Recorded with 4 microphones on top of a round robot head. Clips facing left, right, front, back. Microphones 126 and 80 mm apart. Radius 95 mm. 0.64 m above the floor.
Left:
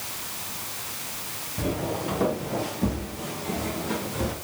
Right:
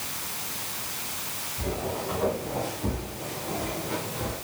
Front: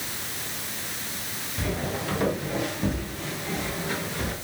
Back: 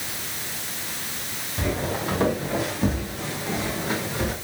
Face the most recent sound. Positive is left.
turn(degrees=120)